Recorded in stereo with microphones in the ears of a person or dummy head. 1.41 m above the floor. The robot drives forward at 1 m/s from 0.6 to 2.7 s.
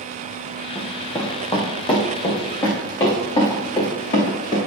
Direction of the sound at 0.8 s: 15° left (ahead or behind).